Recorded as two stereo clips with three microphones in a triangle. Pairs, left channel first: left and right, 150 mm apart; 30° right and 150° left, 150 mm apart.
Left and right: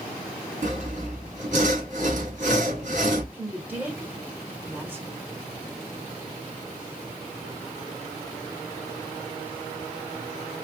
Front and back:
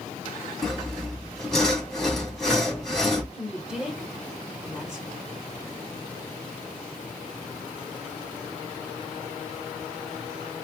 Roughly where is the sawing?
Behind right.